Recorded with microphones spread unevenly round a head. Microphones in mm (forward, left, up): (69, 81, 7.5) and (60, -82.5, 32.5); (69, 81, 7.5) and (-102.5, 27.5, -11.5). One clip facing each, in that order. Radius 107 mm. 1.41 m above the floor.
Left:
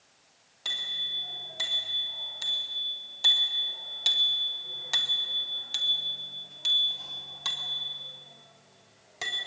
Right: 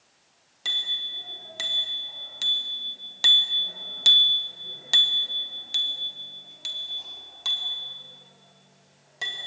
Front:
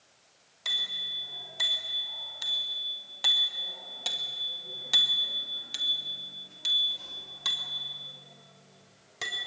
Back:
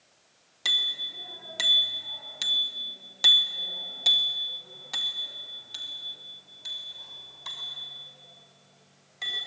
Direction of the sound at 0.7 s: 145° right.